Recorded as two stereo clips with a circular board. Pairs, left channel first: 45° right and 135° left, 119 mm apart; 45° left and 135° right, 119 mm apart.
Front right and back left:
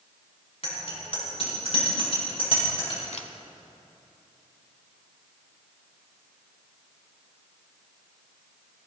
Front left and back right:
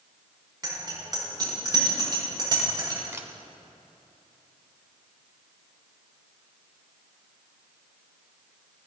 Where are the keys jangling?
No keys jangling in this recording.